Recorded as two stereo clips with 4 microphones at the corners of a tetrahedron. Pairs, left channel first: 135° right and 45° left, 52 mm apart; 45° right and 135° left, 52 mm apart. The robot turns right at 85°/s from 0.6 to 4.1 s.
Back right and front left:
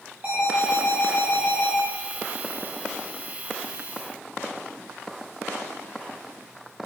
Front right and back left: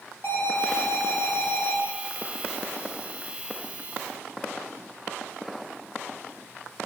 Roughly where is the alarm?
Ahead.